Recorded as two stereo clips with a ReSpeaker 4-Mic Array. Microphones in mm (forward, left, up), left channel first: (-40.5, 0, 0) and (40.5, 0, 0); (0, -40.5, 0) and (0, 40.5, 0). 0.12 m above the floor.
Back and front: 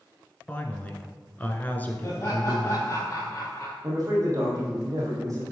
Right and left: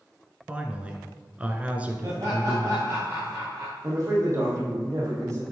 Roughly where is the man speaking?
Ahead left.